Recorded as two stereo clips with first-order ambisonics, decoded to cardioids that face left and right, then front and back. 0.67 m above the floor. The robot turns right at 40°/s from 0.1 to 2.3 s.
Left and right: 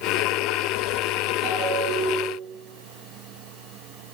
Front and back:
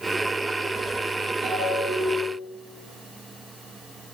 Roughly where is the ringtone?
Behind right.